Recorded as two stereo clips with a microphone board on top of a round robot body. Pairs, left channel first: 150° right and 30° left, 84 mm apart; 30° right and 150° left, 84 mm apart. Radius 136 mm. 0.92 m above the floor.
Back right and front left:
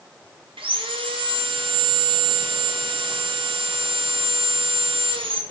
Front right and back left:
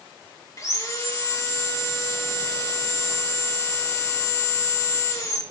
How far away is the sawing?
About 2.5 m.